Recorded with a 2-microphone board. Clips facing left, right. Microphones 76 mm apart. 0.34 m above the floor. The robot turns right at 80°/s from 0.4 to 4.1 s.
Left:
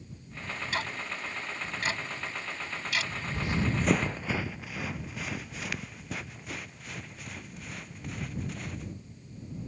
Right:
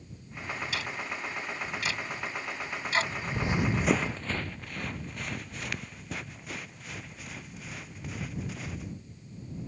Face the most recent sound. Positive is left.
turn(degrees=0)  # may be behind; listen again after turning